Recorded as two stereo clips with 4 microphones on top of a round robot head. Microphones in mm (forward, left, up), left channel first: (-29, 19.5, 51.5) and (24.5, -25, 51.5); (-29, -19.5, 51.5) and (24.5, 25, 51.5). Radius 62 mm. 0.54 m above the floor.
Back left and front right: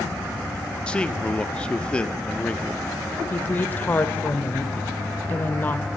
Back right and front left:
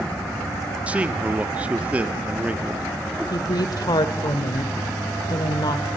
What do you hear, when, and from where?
0.9 s a man speaking: 85° left, 1.3 m
3.3 s a woman speaking: 155° right, 1.7 m